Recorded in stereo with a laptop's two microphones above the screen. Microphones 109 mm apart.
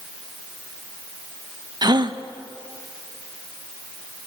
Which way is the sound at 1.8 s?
40° right (ahead or behind).